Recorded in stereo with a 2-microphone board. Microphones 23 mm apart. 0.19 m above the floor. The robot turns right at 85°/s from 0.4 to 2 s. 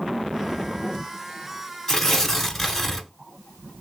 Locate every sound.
1.9 s tearing paper: 20° left (ahead or behind), 0.8 m; by 3.1 s 10° left (ahead or behind), 0.8 m